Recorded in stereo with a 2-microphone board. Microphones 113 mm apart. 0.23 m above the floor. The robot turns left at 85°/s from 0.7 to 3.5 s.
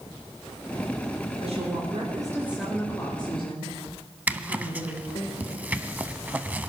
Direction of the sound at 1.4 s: 75° right.